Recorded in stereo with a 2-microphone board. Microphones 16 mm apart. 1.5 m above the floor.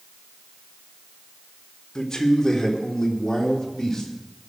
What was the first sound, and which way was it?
A man speaking, 30° left (ahead or behind).